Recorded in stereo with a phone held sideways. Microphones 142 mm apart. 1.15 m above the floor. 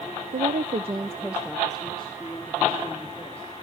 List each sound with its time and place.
0.3 s a woman speaking: 75° right (ahead or behind), 0.6 m; by 3.6 s 10° left (ahead or behind), 3.5 m